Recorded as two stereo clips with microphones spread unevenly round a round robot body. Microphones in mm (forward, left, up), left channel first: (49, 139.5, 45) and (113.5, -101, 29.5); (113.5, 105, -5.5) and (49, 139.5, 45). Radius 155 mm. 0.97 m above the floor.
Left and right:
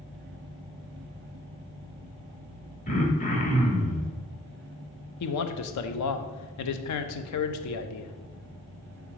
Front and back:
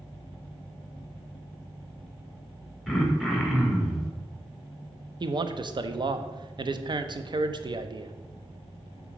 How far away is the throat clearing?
About 1.4 m.